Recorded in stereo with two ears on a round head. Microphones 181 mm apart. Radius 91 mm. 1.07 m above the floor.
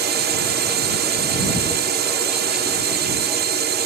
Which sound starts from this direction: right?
A drone, at 0.0 s.